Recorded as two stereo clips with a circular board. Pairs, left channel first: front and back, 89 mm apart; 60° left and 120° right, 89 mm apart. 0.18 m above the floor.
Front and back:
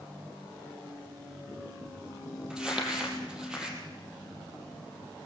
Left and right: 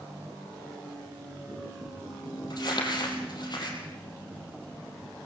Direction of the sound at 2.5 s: 100° left.